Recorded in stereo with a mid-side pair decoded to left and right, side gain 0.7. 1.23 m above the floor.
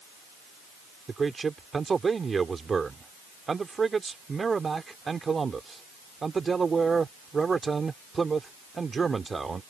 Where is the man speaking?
20° right.